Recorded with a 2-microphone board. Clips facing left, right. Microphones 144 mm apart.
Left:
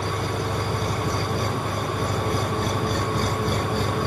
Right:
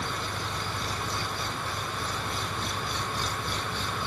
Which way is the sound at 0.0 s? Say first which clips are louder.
Left 8 dB; 50° left (ahead or behind).